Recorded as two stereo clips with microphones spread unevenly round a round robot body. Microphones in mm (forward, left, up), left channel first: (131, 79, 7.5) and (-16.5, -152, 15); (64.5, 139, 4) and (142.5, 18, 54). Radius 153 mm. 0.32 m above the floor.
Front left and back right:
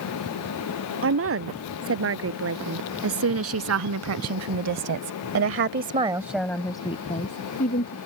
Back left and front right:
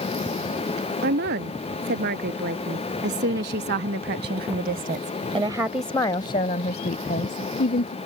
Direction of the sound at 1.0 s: 85° right.